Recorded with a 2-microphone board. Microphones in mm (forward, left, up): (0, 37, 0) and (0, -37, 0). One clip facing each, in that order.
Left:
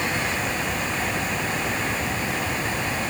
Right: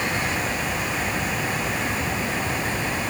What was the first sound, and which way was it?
Only background noise.